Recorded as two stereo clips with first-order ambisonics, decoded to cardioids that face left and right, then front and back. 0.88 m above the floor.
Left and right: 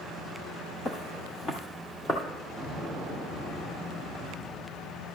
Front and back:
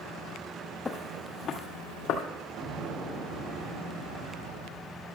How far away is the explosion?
About 5 m.